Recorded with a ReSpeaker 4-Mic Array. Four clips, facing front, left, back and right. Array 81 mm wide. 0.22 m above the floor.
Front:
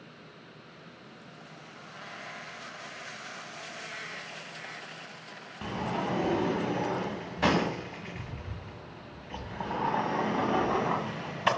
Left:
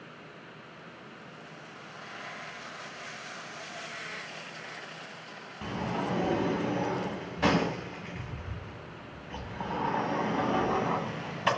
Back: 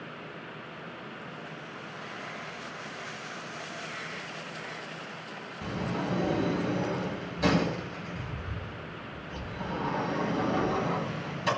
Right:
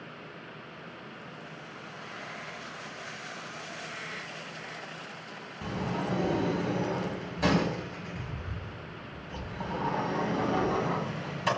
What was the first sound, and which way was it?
A sliding door, 20° left.